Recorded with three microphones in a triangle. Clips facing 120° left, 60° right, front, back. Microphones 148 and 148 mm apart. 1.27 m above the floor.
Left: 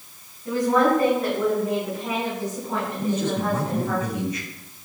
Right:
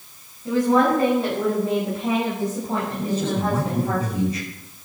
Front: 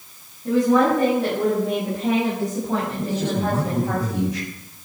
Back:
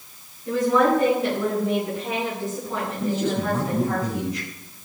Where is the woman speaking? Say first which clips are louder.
Right 2 dB, front 2 dB; 5° left, 9.5 m; by 4.0 s 10° right, 8 m.